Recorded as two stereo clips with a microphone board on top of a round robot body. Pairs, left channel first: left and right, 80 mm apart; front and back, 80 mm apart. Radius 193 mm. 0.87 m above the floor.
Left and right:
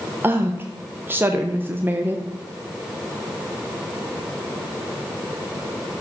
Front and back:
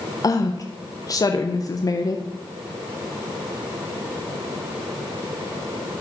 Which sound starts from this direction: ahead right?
A woman speaking, at 0.2 s.